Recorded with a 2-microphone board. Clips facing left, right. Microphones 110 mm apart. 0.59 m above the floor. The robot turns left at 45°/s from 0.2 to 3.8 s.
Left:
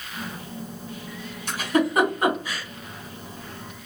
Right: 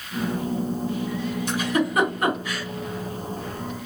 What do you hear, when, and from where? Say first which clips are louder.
1.5 s a giggle: left 2 dB; 45° left (ahead or behind), 2.5 m; by 2.6 s centre (ahead or behind), 2.5 m